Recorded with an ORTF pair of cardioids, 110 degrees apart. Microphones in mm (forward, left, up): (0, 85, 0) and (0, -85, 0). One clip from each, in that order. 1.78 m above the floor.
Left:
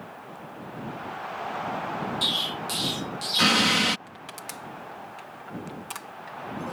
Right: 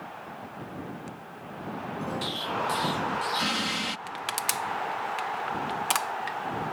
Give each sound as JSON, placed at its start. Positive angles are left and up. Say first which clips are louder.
{"t": 2.2, "sound": "an explosion", "louder": "left 4 dB", "azimuth_deg": 45}
{"t": 4.1, "sound": "crushing", "louder": "right 9 dB", "azimuth_deg": -65}